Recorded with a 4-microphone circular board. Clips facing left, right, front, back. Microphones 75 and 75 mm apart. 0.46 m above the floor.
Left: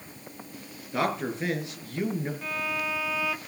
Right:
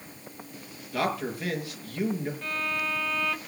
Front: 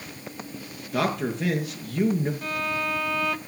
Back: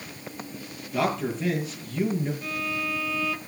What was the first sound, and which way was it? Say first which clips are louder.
A man speaking: left 1 dB, even; 25° left.